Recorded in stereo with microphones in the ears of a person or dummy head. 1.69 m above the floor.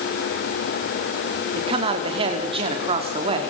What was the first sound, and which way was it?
A man speaking, 30° right (ahead or behind).